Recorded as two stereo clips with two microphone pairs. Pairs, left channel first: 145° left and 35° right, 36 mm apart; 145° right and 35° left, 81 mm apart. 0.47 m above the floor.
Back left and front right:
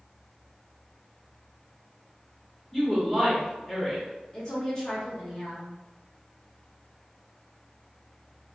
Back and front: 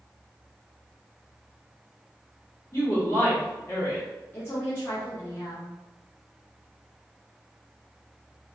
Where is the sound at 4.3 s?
160° right, 0.8 m.